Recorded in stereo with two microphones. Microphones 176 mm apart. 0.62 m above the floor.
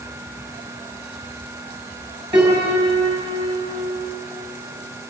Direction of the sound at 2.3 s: 30° right (ahead or behind).